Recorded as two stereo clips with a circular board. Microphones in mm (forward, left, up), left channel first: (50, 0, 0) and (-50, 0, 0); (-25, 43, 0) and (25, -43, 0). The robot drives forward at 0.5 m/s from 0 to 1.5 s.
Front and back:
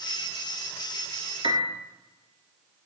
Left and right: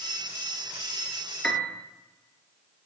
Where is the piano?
160° right, 1.3 m; by 1.8 s 165° right, 1.3 m.